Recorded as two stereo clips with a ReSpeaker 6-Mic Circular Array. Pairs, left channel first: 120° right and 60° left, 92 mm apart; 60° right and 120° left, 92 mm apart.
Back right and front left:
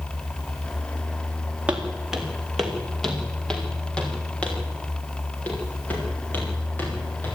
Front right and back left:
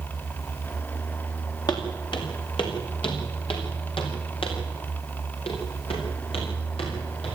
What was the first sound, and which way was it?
Footsteps, 20° right.